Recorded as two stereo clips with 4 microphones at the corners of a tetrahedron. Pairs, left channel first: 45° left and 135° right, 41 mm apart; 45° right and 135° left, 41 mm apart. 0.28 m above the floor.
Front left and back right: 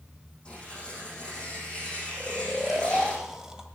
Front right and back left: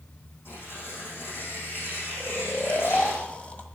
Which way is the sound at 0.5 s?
25° right.